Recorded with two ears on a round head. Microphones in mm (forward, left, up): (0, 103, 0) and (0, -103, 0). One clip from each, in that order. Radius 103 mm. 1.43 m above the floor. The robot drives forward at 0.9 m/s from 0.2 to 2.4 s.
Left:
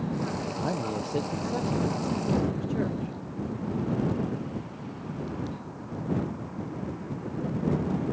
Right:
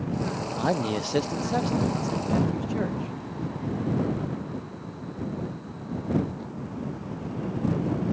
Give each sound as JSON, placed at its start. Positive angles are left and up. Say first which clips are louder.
{"t": 0.6, "sound": "a man speaking", "louder": "right 7 dB", "side_deg": -70}